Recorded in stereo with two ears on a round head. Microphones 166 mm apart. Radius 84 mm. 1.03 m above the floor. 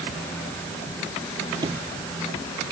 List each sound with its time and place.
1.6 s a sliding door: 20° right (ahead or behind)